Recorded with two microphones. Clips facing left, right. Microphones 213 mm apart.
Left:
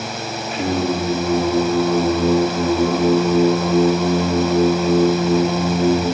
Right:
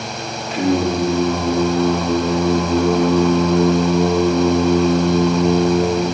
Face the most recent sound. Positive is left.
turn(degrees=-85)